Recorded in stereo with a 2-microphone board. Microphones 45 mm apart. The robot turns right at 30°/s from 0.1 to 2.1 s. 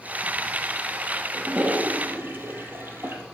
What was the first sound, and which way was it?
A toilet flushing, 30° right (ahead or behind).